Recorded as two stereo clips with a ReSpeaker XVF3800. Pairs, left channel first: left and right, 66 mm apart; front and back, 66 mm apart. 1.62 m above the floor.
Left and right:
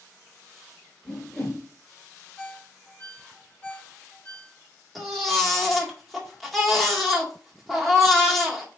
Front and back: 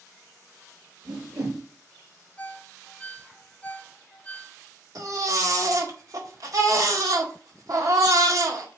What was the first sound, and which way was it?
A whoosh, 170° left.